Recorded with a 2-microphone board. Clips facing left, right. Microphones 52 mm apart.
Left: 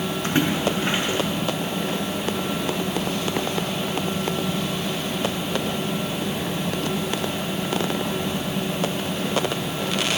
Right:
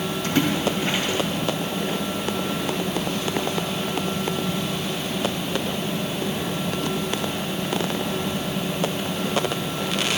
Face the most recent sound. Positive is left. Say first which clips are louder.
# even
turn(degrees=35)  # may be behind; listen again after turning